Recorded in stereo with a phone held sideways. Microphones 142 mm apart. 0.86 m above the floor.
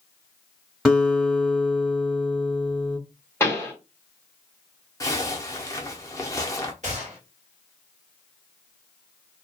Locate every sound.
0.8 s a guitar: 5° right (ahead or behind), 1.3 m
3.4 s a pop: 15° left (ahead or behind), 1.0 m
5.0 s a zipper: 25° left (ahead or behind), 0.5 m
6.8 s a gunshot: 55° right (ahead or behind), 1.4 m